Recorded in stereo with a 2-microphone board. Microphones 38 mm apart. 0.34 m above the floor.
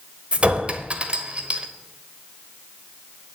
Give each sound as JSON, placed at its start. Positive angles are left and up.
{"t": 0.3, "sound": "a clink", "side_deg": -30, "distance_m": 1.0}